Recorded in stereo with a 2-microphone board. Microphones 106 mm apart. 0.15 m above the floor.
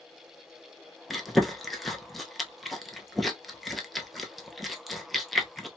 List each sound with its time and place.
1.1 s chewing: centre (ahead or behind), 0.6 m